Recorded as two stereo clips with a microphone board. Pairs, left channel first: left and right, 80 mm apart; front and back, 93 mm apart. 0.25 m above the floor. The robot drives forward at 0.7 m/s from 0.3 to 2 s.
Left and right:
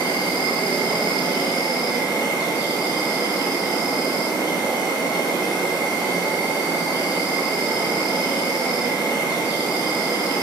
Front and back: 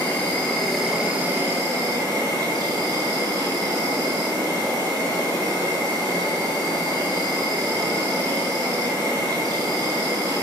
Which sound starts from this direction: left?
An insect, at 0.0 s.